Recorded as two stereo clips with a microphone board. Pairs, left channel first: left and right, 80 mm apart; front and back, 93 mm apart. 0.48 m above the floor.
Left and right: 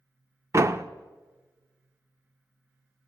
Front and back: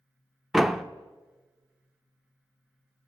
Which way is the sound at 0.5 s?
95° right.